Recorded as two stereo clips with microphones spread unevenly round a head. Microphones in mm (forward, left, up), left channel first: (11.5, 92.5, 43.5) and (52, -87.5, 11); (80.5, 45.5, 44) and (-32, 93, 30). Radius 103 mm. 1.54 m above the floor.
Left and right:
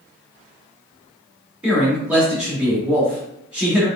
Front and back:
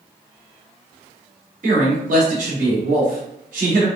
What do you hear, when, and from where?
1.6 s a man speaking: 165° right, 1.0 m